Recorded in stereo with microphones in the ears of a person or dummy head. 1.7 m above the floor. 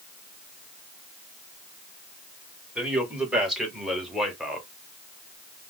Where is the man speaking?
5° right (ahead or behind), 2.5 m; by 4.7 s centre (ahead or behind), 1.2 m.